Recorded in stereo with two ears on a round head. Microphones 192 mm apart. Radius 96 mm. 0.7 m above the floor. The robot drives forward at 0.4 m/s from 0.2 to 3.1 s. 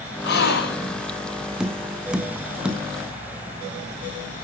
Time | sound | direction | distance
0.2 | a gasp | 50° left (ahead or behind) | 5 m
1.6 | tapping | 5° right (ahead or behind) | 1.8 m